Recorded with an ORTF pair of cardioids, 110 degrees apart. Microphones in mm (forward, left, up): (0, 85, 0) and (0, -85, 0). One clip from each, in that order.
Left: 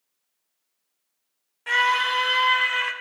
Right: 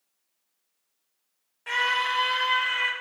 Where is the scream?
15° left, 1.0 m; by 2.9 s 20° left, 2 m.